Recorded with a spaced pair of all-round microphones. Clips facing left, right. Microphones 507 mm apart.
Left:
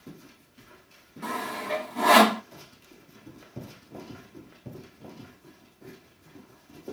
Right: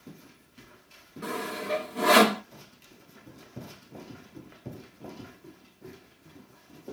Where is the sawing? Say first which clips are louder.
Right 1 dB; 15° left (ahead or behind), 1.1 m.